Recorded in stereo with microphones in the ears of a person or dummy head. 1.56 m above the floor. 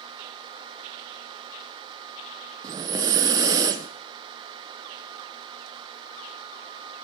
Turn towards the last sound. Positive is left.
turn(degrees=-25)  # may be behind; listen again after turning